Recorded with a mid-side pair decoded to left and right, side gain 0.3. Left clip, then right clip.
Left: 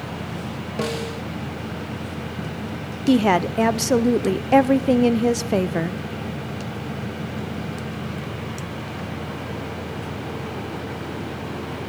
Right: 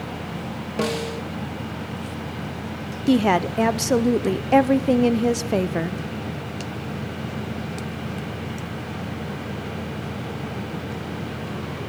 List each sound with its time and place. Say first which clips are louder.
0.8 s a snare drum: right 2 dB; 25° right, 1.8 m
3.1 s a woman speaking: left 1 dB; 5° left, 0.8 m